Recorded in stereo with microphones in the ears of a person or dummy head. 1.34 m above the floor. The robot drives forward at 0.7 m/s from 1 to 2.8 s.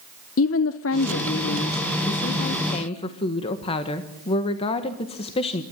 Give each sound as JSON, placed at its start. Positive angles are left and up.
{"t": 0.4, "sound": "a woman speaking", "side_deg": 70, "distance_m": 0.9}